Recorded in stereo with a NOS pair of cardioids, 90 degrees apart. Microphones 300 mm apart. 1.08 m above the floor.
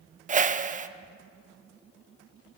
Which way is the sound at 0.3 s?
25° right.